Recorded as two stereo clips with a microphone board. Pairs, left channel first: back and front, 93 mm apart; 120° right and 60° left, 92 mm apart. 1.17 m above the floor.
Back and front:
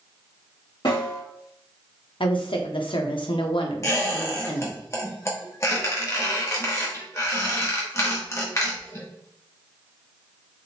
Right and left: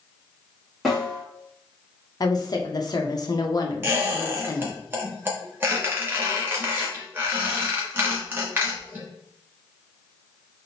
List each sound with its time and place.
0.8 s a snare drum: 155° left, 1.7 m
2.2 s a woman speaking: 165° right, 0.7 m
3.8 s a squeak: 125° left, 1.0 m